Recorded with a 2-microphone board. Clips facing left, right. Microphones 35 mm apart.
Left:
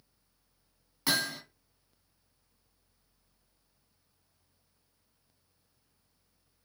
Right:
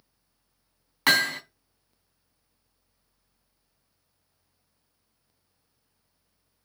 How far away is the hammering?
About 1.8 m.